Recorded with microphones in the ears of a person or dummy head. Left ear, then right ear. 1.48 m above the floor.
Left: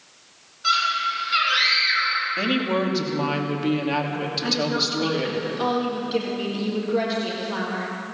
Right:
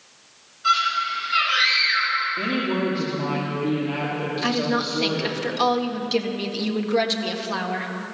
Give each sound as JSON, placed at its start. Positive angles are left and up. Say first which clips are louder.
{"t": 0.6, "sound": "a scream", "louder": "right 1 dB", "side_deg": 20, "distance_m": 7.0}
{"t": 2.4, "sound": "a woman speaking", "louder": "left 1 dB", "side_deg": 65, "distance_m": 2.5}
{"t": 4.4, "sound": "a woman speaking", "louder": "even", "side_deg": -35, "distance_m": 1.8}